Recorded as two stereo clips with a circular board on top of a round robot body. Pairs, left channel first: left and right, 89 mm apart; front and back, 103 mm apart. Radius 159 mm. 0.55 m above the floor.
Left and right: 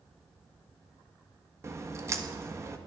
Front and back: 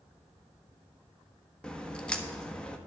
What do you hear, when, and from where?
1.6 s a crack: 75° right, 1.4 m